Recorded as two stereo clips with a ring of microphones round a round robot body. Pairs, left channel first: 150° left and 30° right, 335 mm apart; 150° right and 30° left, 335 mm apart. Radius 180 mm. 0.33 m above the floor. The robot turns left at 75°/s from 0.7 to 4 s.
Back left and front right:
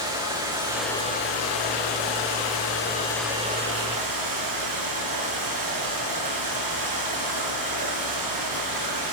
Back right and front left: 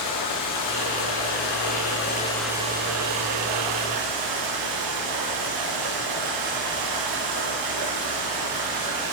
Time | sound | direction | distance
0.0 | running water | 110° right | 9 m